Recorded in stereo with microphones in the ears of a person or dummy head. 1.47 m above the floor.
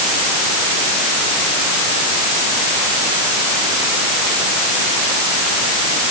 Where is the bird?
No bird in this recording.